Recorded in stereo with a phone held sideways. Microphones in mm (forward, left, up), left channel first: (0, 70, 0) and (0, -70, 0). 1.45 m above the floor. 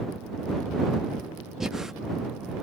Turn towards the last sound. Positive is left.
turn(degrees=-5)  # may be behind; listen again after turning